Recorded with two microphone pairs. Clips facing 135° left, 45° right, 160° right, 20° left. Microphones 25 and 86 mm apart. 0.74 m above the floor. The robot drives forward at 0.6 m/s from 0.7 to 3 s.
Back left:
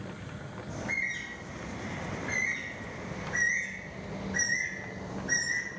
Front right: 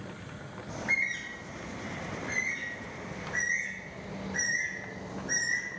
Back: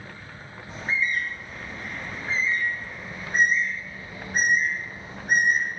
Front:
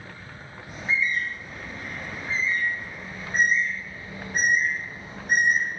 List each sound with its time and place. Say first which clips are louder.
0.7 s a bird: front right 3 dB, front 1 dB; 90° right, 0.5 m; by 5.7 s 160° right, 1.5 m